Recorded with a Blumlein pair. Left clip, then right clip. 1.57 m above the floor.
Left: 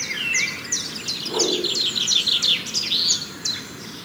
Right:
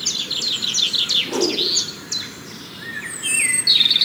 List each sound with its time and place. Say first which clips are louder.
1.2 s a whoosh: right 1 dB; 30° right, 1.9 m